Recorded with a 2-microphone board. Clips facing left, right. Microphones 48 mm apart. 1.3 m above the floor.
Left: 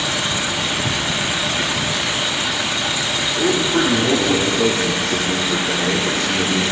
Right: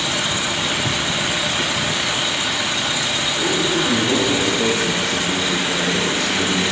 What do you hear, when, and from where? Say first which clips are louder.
3.4 s a man speaking: left 3 dB; 75° left (ahead or behind), 2.5 m